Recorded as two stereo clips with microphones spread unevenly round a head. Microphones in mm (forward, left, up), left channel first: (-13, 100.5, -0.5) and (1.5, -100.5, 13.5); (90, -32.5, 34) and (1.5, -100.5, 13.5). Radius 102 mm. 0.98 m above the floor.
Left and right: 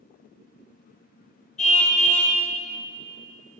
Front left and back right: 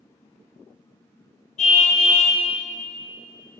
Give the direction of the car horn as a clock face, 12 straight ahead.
11 o'clock.